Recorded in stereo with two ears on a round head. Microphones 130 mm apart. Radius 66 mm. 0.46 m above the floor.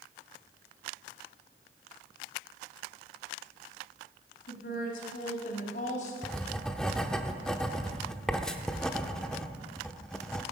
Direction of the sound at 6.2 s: 5° left (ahead or behind).